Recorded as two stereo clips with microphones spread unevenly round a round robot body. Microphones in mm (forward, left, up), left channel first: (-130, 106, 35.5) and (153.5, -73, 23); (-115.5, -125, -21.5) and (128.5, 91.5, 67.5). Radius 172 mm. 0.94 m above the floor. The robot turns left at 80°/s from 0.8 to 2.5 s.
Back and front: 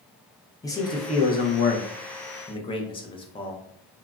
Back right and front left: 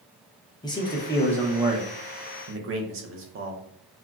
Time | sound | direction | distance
0.6 | a man speaking | 140° right | 0.5 m